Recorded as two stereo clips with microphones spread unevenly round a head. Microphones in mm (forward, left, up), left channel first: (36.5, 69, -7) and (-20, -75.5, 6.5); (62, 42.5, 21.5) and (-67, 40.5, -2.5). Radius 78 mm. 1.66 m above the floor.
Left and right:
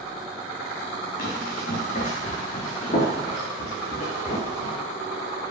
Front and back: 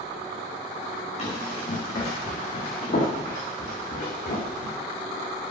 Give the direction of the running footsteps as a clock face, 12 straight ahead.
11 o'clock.